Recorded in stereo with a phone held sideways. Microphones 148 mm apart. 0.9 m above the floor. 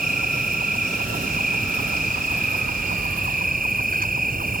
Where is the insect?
75° right (ahead or behind).